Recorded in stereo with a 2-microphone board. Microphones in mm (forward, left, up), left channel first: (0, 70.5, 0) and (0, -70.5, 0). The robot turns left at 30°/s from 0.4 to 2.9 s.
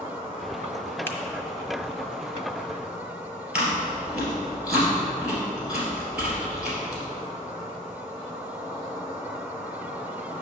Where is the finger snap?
15° left (ahead or behind), 0.9 m.